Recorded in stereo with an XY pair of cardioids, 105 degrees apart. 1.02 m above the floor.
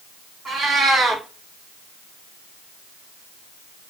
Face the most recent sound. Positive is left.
turn(degrees=-35)